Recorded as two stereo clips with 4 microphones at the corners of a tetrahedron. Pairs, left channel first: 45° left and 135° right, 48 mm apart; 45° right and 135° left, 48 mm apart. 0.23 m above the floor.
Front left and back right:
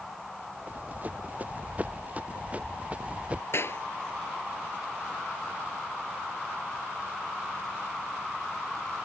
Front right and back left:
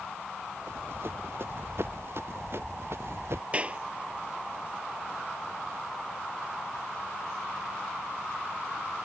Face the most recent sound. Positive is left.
turn(degrees=70)